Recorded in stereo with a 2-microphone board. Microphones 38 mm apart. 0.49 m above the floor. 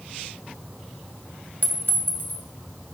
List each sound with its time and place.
1.6 s a clink: 70° left (ahead or behind), 2 m